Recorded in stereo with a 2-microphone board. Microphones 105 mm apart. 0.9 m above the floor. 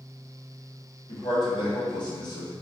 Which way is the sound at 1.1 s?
35° left (ahead or behind).